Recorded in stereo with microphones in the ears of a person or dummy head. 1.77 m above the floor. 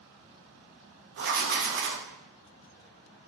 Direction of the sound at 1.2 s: 55° right (ahead or behind).